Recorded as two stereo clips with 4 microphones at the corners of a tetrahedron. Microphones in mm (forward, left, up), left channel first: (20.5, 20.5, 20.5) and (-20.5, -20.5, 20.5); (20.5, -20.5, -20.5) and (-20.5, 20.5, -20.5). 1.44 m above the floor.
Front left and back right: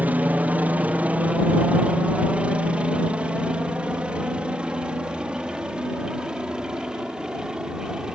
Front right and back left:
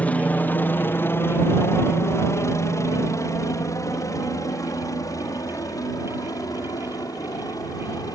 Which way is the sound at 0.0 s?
95° right.